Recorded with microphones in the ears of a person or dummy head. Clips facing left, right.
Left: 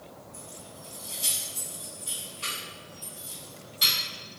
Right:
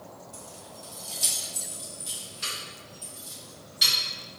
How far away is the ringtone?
I don't hear a ringtone.